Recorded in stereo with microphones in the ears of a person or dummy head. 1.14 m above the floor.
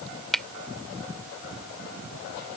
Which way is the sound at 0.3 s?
Centre (ahead or behind).